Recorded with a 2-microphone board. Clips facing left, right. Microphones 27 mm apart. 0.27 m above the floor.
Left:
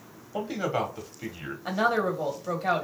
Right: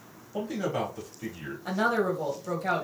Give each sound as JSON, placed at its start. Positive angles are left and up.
{"t": 0.3, "sound": "a man speaking", "side_deg": 35, "distance_m": 1.0}
{"t": 1.6, "sound": "a woman speaking", "side_deg": 25, "distance_m": 1.0}